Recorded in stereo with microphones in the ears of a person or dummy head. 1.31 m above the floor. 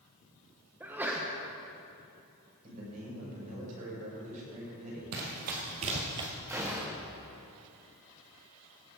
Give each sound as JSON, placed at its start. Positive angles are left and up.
{"t": 0.8, "sound": "a sneeze", "side_deg": -10, "distance_m": 1.0}
{"t": 2.6, "sound": "a man speaking", "side_deg": -45, "distance_m": 4.5}
{"t": 5.1, "sound": "running footsteps", "side_deg": -55, "distance_m": 2.0}
{"t": 6.5, "sound": "a gunshot", "side_deg": -10, "distance_m": 1.6}